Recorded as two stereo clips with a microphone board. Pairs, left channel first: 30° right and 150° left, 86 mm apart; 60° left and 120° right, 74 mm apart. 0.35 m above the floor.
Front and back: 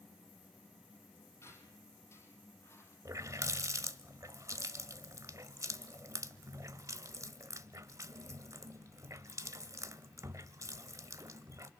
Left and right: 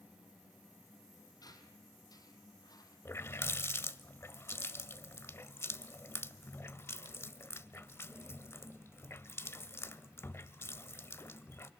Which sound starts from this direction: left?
A running tap, at 3.0 s.